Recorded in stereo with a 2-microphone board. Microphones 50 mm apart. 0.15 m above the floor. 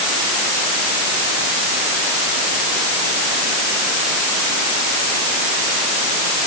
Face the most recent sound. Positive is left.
No sound to turn to.